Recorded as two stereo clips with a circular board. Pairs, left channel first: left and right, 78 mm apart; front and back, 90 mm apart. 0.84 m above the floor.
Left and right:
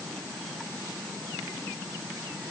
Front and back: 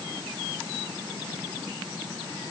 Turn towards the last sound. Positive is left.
No sound to turn to.